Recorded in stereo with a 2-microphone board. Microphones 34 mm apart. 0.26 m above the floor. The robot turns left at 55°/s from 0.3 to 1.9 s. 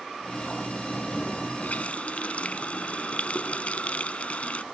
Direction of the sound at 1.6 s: 55° left (ahead or behind).